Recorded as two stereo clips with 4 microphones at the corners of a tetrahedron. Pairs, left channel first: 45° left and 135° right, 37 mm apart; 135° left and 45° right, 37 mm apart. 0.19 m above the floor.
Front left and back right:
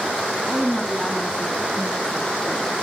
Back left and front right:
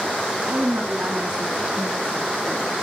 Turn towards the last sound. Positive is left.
turn(degrees=0)